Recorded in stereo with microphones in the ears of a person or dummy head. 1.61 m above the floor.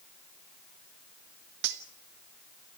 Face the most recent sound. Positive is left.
turn(degrees=-60)  # may be behind; listen again after turning